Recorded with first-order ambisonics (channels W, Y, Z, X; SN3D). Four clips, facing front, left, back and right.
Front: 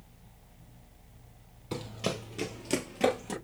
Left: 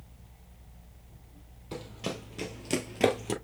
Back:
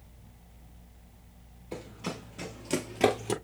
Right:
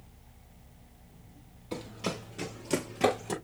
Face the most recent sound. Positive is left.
turn(degrees=145)